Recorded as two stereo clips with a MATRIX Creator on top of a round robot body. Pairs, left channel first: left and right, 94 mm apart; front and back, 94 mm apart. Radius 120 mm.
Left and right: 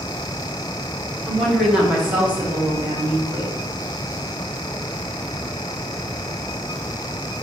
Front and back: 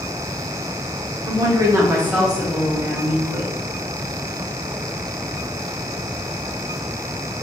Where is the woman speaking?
175° left, 1.3 m; by 3.5 s 45° right, 1.3 m.